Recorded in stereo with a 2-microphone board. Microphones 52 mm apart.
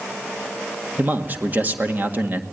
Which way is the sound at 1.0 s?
35° right (ahead or behind).